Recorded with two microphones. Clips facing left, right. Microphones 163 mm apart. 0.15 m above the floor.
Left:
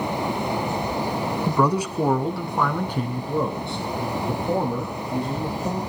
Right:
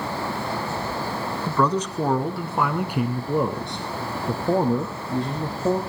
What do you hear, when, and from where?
1.5 s a man speaking: 15° left (ahead or behind), 1.1 m; by 5.8 s 25° right (ahead or behind), 3 m